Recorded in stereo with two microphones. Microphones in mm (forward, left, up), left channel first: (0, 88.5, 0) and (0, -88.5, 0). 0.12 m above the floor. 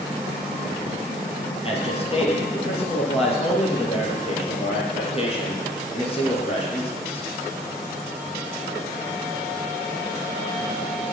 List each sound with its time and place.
1.6 s a man speaking: 35° left (ahead or behind), 3 m